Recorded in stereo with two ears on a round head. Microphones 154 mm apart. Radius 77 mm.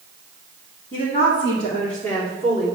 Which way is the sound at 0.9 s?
45° left (ahead or behind).